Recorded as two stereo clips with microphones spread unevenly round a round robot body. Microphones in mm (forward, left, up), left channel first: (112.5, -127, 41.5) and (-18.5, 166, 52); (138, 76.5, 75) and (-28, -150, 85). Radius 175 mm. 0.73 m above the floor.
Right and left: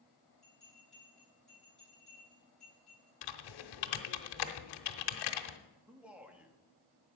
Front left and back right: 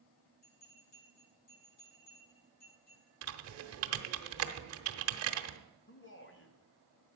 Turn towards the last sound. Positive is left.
turn(degrees=25)